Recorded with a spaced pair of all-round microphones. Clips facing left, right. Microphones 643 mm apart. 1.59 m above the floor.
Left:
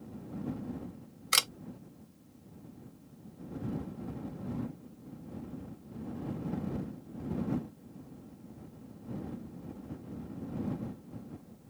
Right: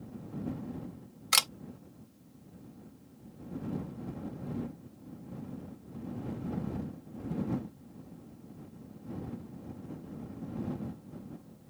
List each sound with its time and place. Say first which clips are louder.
1.3 s a camera shutter: even; 25° right (ahead or behind)